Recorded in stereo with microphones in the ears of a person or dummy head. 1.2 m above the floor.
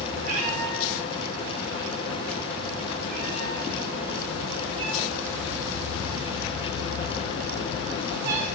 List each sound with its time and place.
0.2 s a cat meowing: 75° right (ahead or behind), 10 m; by 8.5 s 55° right (ahead or behind), 5.5 m